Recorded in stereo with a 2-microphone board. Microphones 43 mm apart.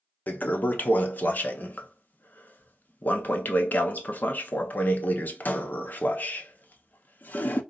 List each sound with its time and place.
0.3 s a toilet flushing: 45° left (ahead or behind), 0.5 m